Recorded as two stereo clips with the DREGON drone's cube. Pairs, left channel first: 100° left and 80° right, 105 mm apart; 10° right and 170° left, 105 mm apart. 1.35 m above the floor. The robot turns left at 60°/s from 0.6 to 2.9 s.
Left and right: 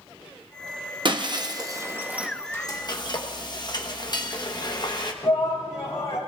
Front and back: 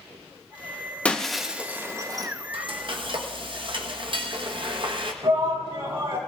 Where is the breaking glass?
85° right, 0.8 m; by 2.3 s 160° right, 0.8 m.